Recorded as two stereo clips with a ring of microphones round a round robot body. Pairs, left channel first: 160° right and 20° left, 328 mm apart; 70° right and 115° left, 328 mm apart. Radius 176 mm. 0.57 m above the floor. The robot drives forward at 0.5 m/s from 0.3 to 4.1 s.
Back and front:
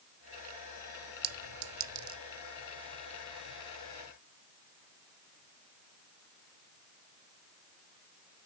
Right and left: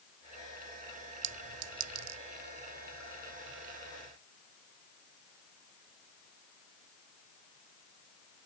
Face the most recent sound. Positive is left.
turn(degrees=145)